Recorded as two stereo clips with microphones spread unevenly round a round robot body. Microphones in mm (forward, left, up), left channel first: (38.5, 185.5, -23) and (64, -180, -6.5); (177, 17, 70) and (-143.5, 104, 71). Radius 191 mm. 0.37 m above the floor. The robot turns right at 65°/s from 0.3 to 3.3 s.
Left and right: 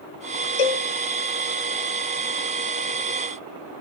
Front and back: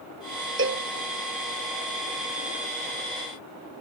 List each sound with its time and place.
0.6 s a cowbell: 110° left, 1.8 m; by 0.9 s 125° left, 1.8 m